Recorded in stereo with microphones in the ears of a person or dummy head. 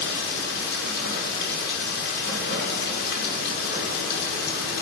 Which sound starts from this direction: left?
Running water, at 0.0 s.